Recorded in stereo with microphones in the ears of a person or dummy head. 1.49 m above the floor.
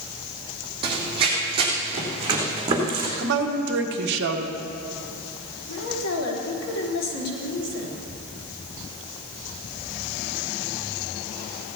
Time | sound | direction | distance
0.8 | running footsteps | 30° right (ahead or behind) | 3 m
3.2 | a woman speaking | 65° right (ahead or behind) | 1.5 m
5.7 | a woman speaking | 85° left | 4.5 m